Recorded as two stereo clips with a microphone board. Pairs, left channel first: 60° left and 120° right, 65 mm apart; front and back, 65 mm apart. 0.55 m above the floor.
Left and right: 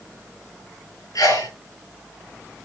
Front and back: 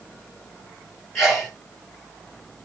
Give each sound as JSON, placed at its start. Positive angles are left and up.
{"t": 1.1, "sound": "a sneeze", "azimuth_deg": 85, "distance_m": 7.0}